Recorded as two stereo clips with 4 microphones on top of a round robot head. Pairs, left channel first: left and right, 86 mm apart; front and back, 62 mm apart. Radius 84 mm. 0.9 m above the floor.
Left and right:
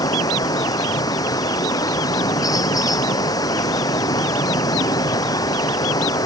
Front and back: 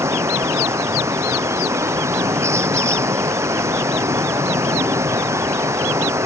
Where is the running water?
135° left.